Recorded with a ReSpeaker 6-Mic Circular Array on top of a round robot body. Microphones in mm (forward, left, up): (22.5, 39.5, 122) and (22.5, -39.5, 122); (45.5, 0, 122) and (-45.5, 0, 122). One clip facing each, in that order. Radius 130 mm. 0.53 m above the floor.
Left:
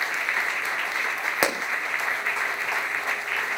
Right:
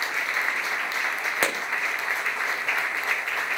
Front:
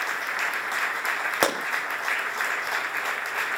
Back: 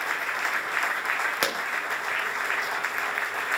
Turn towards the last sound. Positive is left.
turn(degrees=20)